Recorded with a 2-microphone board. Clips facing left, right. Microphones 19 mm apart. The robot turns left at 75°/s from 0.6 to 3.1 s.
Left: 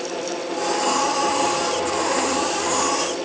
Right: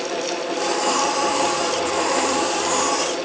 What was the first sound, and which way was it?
Only background noise.